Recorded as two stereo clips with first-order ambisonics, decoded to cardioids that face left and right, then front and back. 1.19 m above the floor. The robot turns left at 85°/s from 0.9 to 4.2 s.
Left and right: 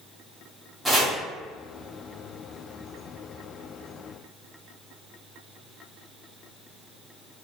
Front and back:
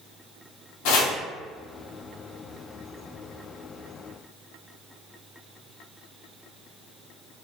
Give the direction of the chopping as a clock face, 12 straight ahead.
12 o'clock.